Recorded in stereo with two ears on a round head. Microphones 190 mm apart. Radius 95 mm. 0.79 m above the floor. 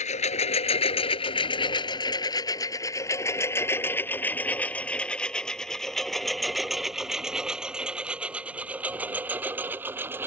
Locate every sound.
0.0 s a lawn mower: 35° left (ahead or behind); by 10.3 s 10° right (ahead or behind)